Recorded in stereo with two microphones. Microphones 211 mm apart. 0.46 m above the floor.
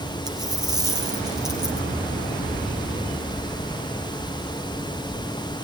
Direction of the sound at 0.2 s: 20° right (ahead or behind).